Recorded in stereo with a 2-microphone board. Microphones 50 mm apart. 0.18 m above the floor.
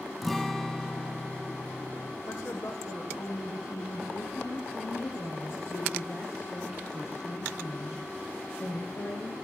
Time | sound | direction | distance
0.2 | a guitar | 5° left (ahead or behind) | 0.9 m
2.2 | a woman speaking | 80° left | 9 m
4.1 | a woman speaking | 65° left (ahead or behind) | 6.5 m